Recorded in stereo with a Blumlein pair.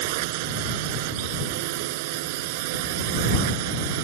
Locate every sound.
0.0 s a drone: 50° right